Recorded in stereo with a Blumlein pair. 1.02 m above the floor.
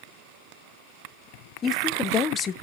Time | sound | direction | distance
1.6 | a woman speaking | 25° left | 0.8 m